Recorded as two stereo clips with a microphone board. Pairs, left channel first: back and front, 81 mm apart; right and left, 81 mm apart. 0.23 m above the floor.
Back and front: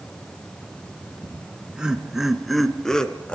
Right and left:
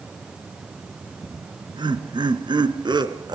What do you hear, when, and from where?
1.2 s laughter: 75° left, 3 m; by 3.4 s 105° left, 2.5 m